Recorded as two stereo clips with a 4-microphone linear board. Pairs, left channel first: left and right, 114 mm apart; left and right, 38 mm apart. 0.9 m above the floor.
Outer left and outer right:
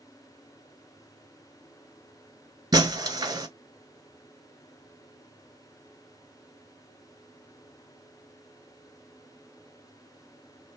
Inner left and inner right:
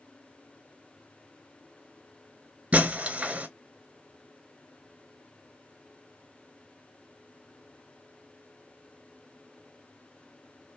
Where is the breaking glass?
35° right (ahead or behind), 1.1 m.